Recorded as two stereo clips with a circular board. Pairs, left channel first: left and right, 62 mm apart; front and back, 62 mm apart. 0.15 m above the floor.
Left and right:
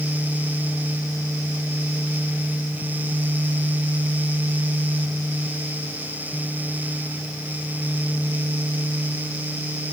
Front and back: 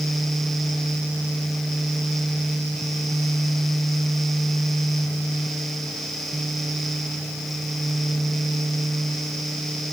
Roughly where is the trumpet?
No trumpet in this recording.